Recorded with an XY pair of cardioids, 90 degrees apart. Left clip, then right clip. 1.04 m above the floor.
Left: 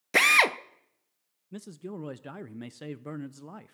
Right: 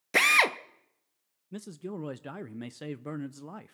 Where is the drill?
10° left, 0.7 m.